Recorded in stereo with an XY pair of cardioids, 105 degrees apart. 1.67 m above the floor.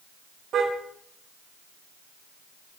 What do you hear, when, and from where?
0.5 s a car horn: 65° right, 3.5 m